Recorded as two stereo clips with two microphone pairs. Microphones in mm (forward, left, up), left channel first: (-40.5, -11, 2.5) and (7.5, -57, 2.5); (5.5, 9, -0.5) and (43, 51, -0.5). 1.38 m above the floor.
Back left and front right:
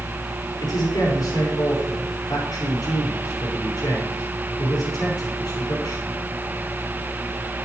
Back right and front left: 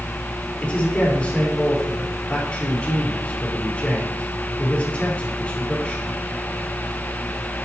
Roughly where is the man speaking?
Behind.